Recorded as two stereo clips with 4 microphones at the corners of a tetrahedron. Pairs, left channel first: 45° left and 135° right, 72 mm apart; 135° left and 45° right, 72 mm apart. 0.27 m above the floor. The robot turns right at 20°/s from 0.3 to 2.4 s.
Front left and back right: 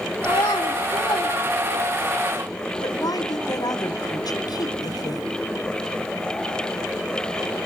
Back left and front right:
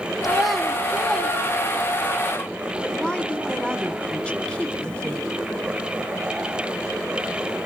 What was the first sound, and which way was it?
A child speaking, 40° left.